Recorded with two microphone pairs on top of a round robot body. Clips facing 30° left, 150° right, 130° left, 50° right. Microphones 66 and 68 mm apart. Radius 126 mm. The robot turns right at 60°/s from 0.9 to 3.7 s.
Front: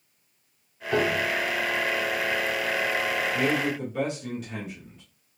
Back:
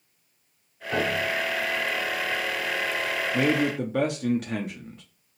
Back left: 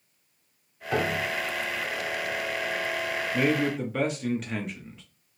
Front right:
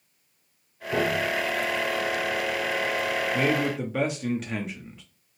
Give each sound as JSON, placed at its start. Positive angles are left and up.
{"t": 0.9, "sound": "a piano", "azimuth_deg": 125, "distance_m": 1.1}
{"t": 3.3, "sound": "a man speaking", "azimuth_deg": -170, "distance_m": 0.7}